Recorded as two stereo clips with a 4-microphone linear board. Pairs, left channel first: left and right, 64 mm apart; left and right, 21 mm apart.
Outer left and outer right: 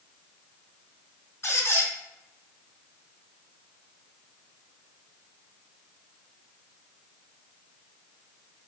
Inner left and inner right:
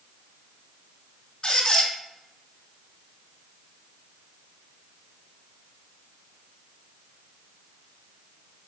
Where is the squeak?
40° left (ahead or behind), 1.4 m.